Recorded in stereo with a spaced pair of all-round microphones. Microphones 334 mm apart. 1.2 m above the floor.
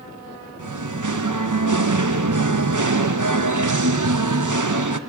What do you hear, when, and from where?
0.6 s singing: 60° right (ahead or behind), 0.8 m